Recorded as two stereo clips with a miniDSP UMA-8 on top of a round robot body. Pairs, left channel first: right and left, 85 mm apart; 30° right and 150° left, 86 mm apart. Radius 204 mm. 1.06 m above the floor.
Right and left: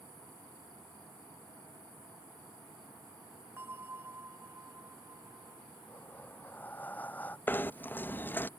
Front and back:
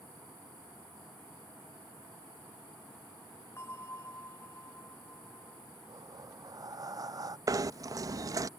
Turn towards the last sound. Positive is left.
turn(degrees=-160)